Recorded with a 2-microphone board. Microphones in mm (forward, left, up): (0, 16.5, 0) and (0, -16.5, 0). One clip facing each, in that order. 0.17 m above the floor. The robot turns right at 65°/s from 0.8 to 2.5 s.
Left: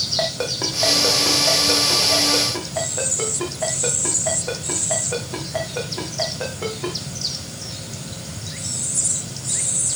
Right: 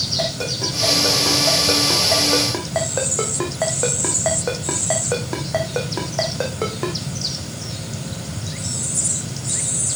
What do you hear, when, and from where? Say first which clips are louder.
0.2 s a ringtone: even; 30° left (ahead or behind), 4 m; by 7.0 s 80° right, 4 m